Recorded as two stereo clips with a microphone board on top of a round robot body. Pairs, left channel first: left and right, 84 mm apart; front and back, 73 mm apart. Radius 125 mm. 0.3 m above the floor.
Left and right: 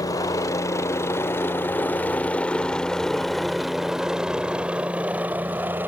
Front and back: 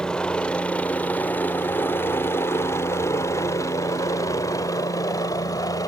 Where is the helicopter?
75° left; by 5.9 s 30° right.